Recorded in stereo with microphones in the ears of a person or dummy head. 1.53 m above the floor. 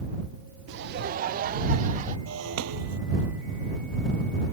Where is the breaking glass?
85° right.